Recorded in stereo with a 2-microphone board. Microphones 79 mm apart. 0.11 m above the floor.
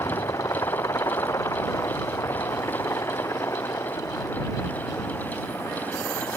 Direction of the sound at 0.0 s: 45° left (ahead or behind).